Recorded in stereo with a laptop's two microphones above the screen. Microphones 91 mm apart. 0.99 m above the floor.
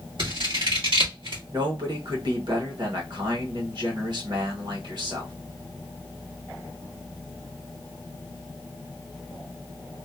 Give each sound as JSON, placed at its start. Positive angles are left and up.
{"t": 0.2, "sound": "scissors", "side_deg": -65, "distance_m": 1.7}
{"t": 1.5, "sound": "a man speaking", "side_deg": -55, "distance_m": 1.3}